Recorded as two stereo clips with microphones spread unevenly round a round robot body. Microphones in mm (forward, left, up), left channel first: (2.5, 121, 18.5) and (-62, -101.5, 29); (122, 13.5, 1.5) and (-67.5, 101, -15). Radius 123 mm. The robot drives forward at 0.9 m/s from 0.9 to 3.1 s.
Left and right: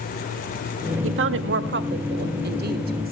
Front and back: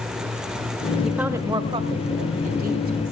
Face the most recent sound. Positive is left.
turn(degrees=-155)